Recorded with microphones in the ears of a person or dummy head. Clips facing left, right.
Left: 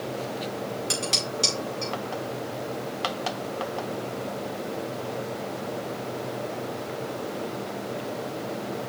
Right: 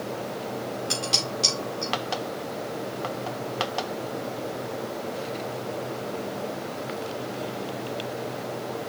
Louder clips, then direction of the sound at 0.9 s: Even; 30° left (ahead or behind).